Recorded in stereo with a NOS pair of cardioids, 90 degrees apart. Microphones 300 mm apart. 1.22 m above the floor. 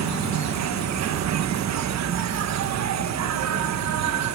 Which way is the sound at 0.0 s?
65° right.